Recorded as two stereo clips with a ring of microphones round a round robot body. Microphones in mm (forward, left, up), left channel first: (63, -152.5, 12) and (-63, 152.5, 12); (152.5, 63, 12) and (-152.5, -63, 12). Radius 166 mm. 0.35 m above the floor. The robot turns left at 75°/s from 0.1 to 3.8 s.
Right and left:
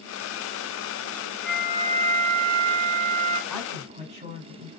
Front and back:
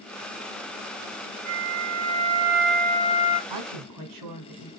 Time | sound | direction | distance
1.4 | a flute | 155° right | 1.0 m
3.5 | a woman speaking | 155° right | 3 m